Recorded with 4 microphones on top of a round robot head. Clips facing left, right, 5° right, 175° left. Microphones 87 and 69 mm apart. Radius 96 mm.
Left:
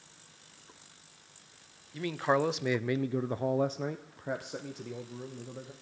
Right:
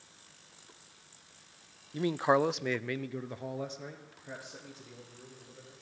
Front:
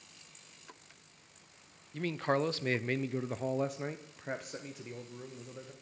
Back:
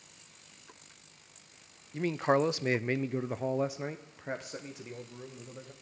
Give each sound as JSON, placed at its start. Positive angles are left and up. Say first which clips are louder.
{"t": 1.9, "sound": "a man speaking", "louder": "right 2 dB, back 4 dB", "azimuth_deg": -125, "distance_m": 0.6}